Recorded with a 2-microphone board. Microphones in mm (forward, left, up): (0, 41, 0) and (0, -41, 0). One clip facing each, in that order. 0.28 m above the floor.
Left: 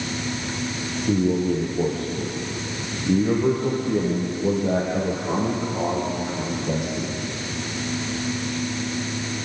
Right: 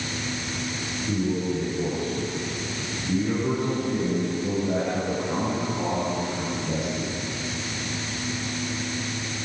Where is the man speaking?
65° left (ahead or behind), 6 m.